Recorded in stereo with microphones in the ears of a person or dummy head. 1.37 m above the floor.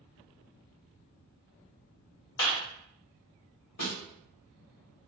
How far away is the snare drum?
About 1.5 m.